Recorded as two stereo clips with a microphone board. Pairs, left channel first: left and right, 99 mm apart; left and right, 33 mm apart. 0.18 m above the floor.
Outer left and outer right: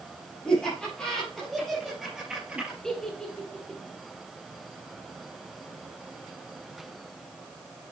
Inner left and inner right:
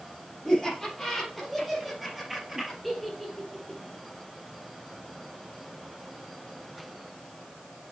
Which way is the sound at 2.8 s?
5° left (ahead or behind).